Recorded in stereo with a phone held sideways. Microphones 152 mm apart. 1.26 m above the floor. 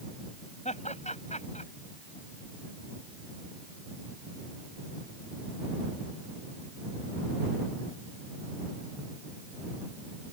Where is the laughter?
50° left (ahead or behind).